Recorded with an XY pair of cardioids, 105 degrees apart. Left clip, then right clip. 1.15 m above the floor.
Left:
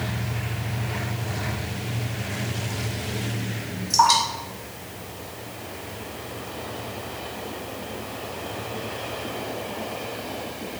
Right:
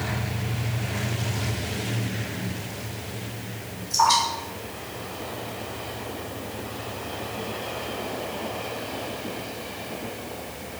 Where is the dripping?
70° left, 1.6 m.